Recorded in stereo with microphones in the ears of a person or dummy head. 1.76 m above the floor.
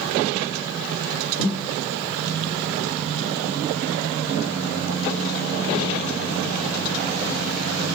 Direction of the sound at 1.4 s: 35° left (ahead or behind).